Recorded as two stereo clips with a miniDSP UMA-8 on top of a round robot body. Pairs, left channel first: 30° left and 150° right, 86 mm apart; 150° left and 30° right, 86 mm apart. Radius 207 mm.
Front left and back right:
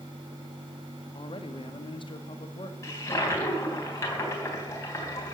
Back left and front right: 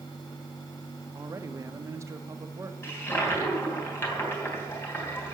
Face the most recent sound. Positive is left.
turn(degrees=85)